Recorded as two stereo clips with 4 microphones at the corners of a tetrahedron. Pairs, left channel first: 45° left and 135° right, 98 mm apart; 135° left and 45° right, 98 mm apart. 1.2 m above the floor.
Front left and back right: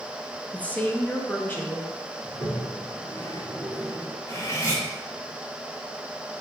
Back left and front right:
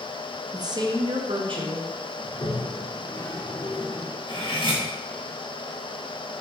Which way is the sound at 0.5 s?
25° right.